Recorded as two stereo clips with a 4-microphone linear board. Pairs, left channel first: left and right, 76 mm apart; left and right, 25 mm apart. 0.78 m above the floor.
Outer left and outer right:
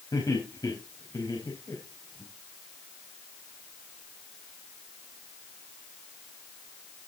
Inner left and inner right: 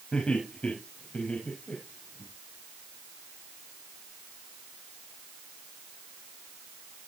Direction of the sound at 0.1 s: 55° left (ahead or behind).